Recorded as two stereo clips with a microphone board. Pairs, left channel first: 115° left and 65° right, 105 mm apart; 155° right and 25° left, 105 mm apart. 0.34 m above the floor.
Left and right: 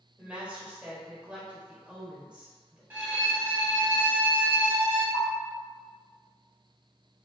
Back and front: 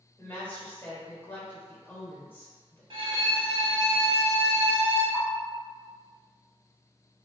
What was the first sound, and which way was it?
A woman speaking, 130° right.